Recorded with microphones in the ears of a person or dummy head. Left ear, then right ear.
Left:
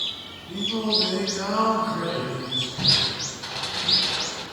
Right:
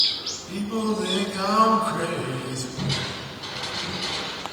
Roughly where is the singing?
Right.